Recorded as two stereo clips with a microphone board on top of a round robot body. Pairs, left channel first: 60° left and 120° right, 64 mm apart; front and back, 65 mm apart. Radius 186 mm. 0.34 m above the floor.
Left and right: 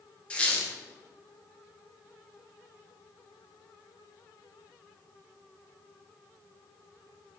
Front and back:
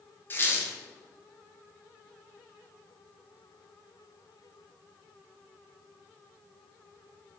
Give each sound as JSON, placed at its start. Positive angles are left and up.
{"t": 0.3, "sound": "a squeak", "azimuth_deg": 0, "distance_m": 0.8}